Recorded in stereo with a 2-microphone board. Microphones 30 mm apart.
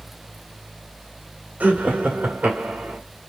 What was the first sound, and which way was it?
Laughter, 65° right (ahead or behind).